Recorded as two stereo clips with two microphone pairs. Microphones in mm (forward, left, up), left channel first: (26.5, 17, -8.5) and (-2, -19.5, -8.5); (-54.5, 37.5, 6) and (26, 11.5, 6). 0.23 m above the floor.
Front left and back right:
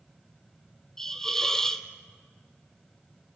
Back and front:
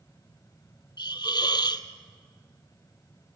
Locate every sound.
1.0 s a hiss: 130° left, 1.2 m